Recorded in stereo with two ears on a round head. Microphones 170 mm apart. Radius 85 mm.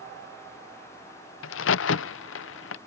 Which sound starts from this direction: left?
A crack, at 1.4 s.